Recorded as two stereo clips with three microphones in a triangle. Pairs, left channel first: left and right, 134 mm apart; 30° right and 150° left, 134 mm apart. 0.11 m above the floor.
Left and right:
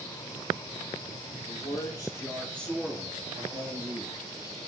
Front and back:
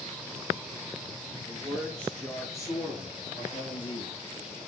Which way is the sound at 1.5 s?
60° left.